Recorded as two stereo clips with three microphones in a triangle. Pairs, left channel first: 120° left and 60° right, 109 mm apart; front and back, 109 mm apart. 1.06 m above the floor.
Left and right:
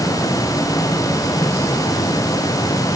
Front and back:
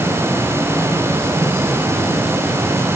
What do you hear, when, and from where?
Only background noise.